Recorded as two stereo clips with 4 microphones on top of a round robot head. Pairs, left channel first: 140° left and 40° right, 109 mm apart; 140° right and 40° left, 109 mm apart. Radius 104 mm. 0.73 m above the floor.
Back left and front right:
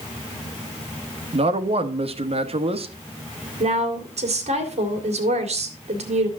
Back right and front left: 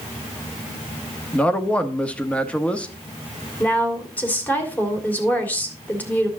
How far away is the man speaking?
About 1.3 m.